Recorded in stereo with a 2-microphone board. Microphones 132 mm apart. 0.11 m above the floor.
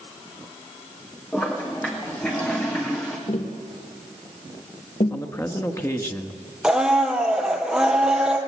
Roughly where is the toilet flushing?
Centre.